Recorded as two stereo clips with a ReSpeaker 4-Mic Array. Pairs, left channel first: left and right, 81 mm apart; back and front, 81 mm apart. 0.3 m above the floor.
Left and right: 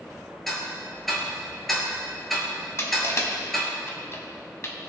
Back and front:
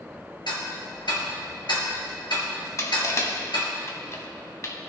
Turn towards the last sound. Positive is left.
turn(degrees=135)